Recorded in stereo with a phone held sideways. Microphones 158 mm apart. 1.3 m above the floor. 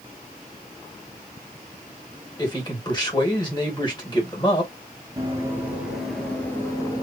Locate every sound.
2.4 s a man speaking: 25° left (ahead or behind), 2 m
5.2 s running footsteps: 20° right (ahead or behind), 1.5 m; by 7.0 s 25° left (ahead or behind), 1.5 m